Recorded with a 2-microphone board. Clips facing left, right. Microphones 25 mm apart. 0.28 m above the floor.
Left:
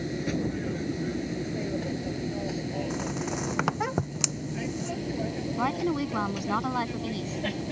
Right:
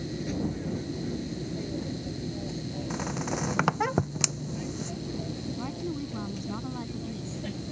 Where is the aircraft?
30° left (ahead or behind); by 7.7 s 40° left (ahead or behind).